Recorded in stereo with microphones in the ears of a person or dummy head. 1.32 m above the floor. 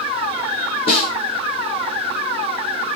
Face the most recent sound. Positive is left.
turn(degrees=30)  # may be behind; listen again after turning